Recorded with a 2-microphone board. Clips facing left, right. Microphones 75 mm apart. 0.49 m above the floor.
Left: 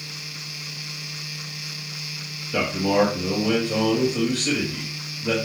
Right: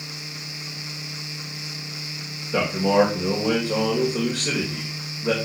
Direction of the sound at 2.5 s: 25° right (ahead or behind).